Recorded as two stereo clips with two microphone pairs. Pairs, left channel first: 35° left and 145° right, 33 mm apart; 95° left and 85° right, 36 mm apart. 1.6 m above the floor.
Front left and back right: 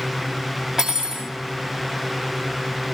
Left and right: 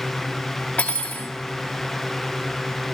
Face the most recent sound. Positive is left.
turn(degrees=140)